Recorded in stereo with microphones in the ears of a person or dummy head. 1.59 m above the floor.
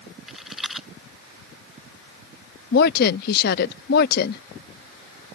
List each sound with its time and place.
0.3 s a rattle: centre (ahead or behind)
2.7 s a woman speaking: 60° left (ahead or behind)